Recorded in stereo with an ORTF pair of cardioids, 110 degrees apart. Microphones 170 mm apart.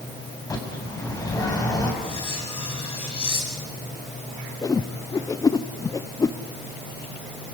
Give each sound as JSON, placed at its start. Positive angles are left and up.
{"t": 0.5, "sound": "a bird", "azimuth_deg": 20, "distance_m": 7.5}
{"t": 2.0, "sound": "cutlery clinking", "azimuth_deg": 30, "distance_m": 7.5}
{"t": 4.6, "sound": "a whoosh", "azimuth_deg": 20, "distance_m": 0.8}